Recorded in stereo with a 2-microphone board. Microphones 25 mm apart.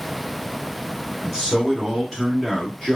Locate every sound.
1.2 s a man speaking: 10° left (ahead or behind), 1.3 m; by 3.0 s 25° left (ahead or behind), 1.5 m